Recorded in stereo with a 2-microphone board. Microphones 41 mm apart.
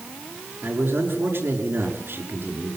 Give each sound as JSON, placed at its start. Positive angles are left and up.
{"t": 0.6, "sound": "a man speaking", "side_deg": -60, "distance_m": 5.5}